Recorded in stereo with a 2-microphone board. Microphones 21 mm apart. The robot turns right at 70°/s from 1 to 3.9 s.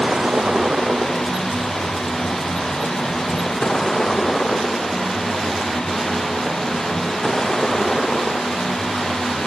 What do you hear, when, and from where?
0.0 s a vehicle: 45° right (ahead or behind); by 9.5 s 10° left (ahead or behind)